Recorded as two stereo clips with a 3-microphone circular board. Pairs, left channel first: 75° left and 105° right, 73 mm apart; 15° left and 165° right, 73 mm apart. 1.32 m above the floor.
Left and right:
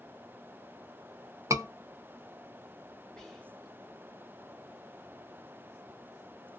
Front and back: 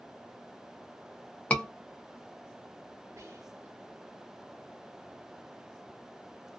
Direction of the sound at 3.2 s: 155° left.